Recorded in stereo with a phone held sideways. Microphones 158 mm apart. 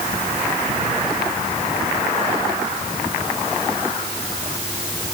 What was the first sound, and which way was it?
Only background noise.